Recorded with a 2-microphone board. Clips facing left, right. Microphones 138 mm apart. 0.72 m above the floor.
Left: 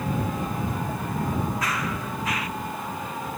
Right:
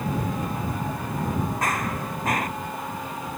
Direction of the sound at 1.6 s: 50° right (ahead or behind).